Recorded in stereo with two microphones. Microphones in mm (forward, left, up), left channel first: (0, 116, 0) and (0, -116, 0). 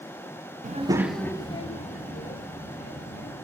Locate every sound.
0.6 s a child speaking: 35° right (ahead or behind), 0.5 m; by 3.4 s 50° left (ahead or behind), 2.0 m